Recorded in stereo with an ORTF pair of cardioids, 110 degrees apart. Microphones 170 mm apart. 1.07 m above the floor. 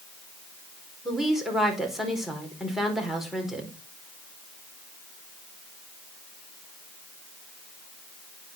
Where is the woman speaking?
Straight ahead, 4 m.